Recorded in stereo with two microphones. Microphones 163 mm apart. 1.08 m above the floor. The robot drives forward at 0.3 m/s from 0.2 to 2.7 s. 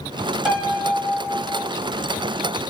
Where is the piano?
5° right (ahead or behind), 1.2 m; by 1.7 s 10° right (ahead or behind), 0.8 m.